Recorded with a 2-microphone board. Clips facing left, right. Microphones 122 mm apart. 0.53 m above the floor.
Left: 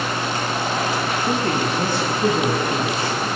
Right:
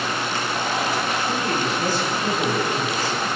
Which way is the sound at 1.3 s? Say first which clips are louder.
Left 3 dB; 60° left (ahead or behind).